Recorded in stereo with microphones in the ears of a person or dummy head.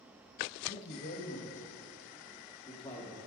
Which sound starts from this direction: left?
A man speaking, at 0.7 s.